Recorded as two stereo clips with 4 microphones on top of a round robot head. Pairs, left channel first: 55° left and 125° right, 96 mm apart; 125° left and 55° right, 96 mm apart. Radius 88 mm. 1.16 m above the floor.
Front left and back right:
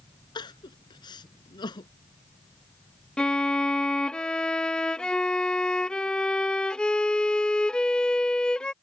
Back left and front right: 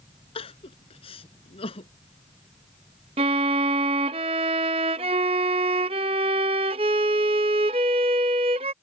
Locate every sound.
0.3 s crying: 100° left
3.2 s a violin: 25° right